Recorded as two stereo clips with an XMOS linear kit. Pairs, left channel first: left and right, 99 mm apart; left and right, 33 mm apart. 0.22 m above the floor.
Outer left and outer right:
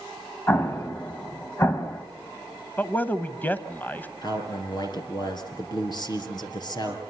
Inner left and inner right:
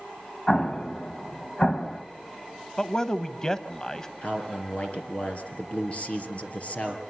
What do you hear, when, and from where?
0.5 s an explosion: 25° left (ahead or behind), 1.6 m
2.8 s a man speaking: 20° left (ahead or behind), 1.0 m
4.2 s a man speaking: 45° left (ahead or behind), 4 m